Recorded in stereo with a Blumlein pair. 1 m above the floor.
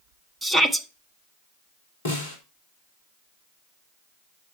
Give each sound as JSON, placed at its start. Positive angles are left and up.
{"t": 0.4, "sound": "a shout", "azimuth_deg": -5, "distance_m": 1.1}
{"t": 2.0, "sound": "a snare drum", "azimuth_deg": 60, "distance_m": 3.0}